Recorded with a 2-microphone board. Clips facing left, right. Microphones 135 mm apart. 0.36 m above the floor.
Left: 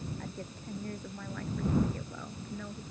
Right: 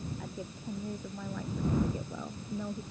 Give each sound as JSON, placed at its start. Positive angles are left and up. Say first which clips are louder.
{"t": 0.2, "sound": "a woman speaking", "louder": "right 1 dB", "side_deg": -5}